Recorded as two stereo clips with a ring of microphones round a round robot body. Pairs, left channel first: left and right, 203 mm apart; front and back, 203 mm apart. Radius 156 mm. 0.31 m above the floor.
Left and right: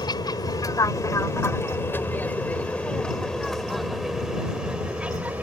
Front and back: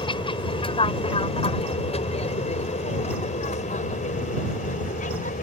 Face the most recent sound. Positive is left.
turn(degrees=-15)